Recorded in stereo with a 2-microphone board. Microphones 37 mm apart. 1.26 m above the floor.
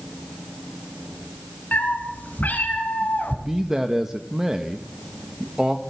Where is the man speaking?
15° right (ahead or behind), 1.2 m.